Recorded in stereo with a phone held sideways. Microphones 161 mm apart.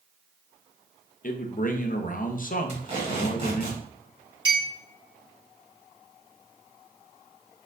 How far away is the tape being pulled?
About 1.7 m.